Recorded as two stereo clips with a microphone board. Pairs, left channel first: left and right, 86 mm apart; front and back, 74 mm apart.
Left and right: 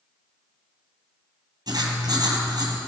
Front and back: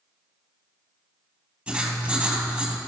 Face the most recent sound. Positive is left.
turn(degrees=-110)